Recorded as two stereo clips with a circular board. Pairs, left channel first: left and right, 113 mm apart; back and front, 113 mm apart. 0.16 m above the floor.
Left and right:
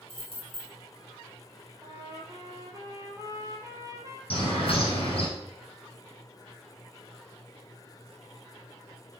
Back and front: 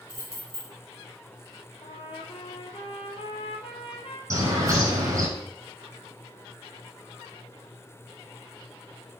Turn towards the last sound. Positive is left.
turn(degrees=60)